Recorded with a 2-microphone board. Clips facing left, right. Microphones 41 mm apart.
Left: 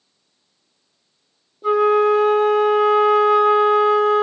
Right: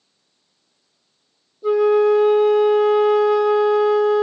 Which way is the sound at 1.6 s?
65° left (ahead or behind).